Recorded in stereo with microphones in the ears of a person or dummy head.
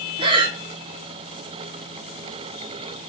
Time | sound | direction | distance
0.2 | breathing | 20° right (ahead or behind) | 0.6 m